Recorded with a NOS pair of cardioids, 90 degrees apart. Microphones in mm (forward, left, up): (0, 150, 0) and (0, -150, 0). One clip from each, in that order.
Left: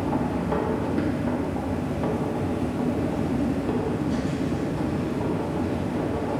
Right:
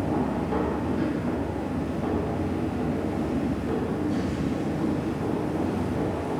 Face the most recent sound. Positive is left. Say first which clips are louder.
# left 1 dB
turn(degrees=30)